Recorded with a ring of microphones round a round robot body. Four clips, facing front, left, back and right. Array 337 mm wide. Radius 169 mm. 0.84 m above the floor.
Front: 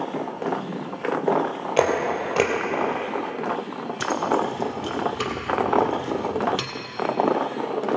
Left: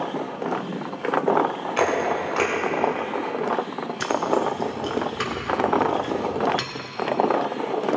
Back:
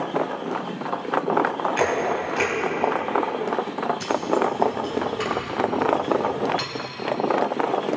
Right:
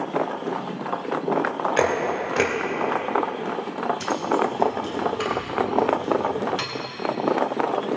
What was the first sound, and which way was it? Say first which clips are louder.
A camera shutter: left 2 dB, front 5 dB; 30° right.